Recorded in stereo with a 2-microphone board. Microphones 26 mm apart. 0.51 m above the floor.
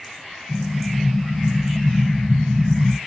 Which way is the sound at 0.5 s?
30° left (ahead or behind).